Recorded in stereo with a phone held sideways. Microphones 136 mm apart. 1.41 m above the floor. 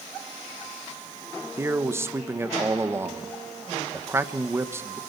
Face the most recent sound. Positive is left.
turn(degrees=-20)  # may be behind; listen again after turning